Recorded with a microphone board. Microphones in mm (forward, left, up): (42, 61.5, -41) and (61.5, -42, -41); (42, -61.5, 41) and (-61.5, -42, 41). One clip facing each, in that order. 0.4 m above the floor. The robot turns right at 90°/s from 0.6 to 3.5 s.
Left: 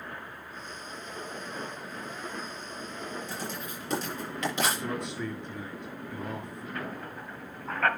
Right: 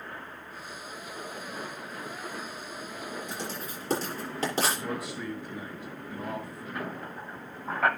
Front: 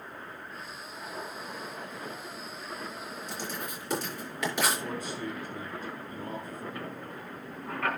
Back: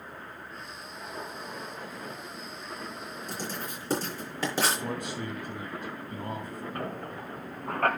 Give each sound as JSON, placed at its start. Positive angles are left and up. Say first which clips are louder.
{"t": 3.3, "sound": "writing", "louder": "even, back 2 dB", "azimuth_deg": -155, "distance_m": 6.5}
{"t": 4.8, "sound": "a man speaking", "louder": "left 1 dB, back 1 dB", "azimuth_deg": -165, "distance_m": 5.0}
{"t": 6.8, "sound": "a squeak", "louder": "right 2 dB, back 4 dB", "azimuth_deg": -155, "distance_m": 1.4}